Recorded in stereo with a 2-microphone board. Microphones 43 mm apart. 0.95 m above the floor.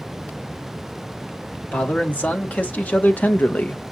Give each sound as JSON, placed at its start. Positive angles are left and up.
{"t": 1.7, "sound": "a man speaking", "side_deg": 40, "distance_m": 1.9}